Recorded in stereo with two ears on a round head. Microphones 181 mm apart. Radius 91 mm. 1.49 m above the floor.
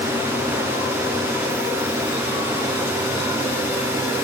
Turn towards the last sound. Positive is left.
No sound to turn to.